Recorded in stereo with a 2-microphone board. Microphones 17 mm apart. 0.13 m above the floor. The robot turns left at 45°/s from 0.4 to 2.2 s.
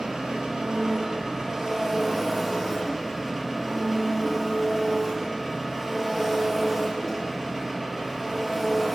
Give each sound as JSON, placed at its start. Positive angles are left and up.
{"t": 0.0, "sound": "an engine running", "azimuth_deg": -95, "distance_m": 1.2}